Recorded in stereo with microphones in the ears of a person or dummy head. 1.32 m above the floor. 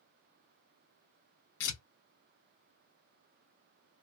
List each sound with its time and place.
1.6 s tearing paper: 70° left (ahead or behind), 1.2 m